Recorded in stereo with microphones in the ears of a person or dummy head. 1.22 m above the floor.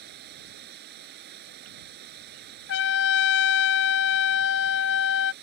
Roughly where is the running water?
Right.